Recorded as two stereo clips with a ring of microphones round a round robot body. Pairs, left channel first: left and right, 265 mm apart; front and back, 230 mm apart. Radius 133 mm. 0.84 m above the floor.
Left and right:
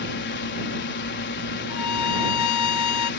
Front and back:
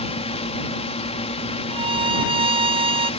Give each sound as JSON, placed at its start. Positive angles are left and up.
{"t": 0.0, "sound": "a drone", "azimuth_deg": 55}
{"t": 1.7, "sound": "a violin", "azimuth_deg": 115}